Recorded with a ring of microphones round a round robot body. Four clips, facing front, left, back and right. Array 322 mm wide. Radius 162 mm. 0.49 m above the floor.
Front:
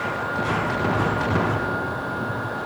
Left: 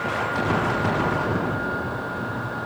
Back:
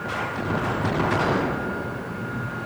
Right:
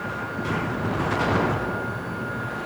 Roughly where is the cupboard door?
No cupboard door in this recording.